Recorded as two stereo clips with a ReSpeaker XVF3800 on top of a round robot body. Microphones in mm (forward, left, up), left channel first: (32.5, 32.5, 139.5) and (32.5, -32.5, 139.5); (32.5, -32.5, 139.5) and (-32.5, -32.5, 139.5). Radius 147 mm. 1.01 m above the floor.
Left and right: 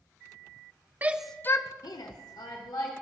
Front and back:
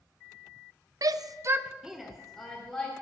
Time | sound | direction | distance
1.0 | a shout | 155° right | 0.7 m